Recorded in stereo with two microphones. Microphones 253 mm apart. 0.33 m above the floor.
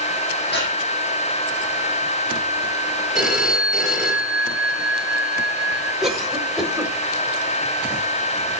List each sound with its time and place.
0.5 s breathing: 45° left (ahead or behind), 6.5 m
3.1 s a phone ringing: centre (ahead or behind), 5 m
6.0 s a cough: centre (ahead or behind), 1.3 m